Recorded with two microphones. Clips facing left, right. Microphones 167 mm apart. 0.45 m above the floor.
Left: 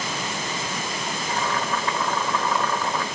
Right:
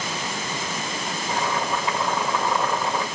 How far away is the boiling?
About 1.2 m.